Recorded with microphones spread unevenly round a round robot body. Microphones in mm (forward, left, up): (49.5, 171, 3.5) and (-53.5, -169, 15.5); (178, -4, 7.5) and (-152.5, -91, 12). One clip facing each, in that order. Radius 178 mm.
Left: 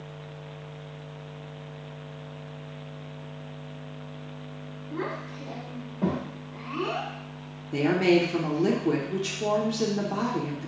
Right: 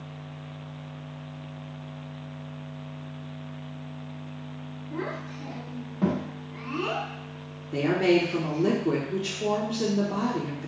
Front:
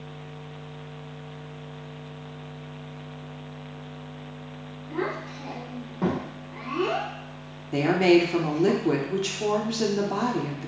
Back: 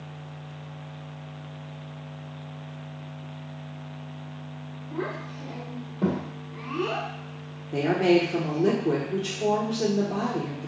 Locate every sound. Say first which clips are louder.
4.9 s a child speaking: left 1 dB, front 2 dB; 30° right, 1.2 m; by 8.7 s 115° right, 1.7 m
7.7 s a woman speaking: left 1 dB, front 2 dB; 5° left, 0.7 m